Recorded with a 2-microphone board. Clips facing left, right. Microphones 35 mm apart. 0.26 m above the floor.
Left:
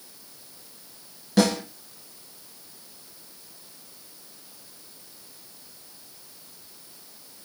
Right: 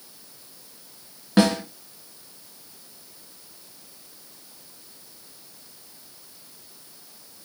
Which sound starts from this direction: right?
A snare drum, at 1.4 s.